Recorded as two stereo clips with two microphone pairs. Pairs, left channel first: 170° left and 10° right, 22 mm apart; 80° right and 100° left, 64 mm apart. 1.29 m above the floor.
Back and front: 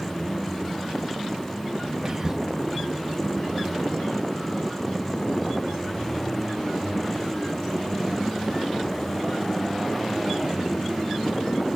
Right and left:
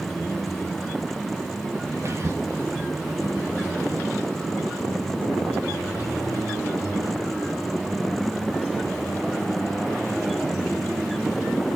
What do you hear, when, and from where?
2.0 s whispering: 60° left, 1.1 m